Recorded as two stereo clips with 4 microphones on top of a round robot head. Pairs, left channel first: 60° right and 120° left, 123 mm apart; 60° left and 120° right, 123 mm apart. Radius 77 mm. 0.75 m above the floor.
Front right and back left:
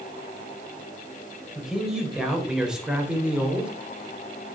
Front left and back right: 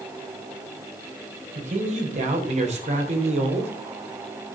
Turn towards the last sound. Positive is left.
turn(degrees=-155)